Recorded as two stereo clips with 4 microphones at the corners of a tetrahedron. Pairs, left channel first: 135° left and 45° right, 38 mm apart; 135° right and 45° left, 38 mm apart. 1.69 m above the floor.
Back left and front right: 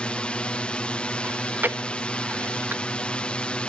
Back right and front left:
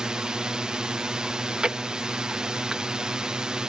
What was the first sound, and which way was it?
A drone, 100° left.